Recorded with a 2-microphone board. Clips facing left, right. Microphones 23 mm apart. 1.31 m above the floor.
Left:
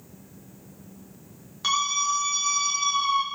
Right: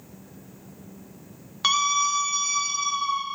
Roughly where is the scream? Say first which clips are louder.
Right 2 dB; right.